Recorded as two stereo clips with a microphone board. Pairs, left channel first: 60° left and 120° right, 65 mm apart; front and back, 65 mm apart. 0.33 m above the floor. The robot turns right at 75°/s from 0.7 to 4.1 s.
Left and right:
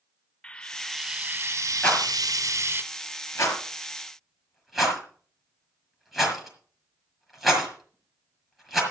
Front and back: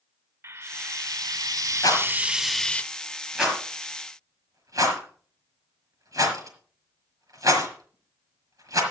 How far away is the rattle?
About 5.5 m.